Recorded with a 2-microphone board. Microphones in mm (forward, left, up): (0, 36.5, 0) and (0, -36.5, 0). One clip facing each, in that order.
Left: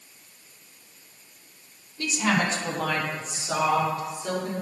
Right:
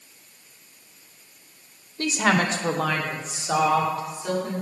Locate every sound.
2.0 s a woman speaking: 45° right (ahead or behind), 0.8 m; by 4.6 s 75° right (ahead or behind), 3 m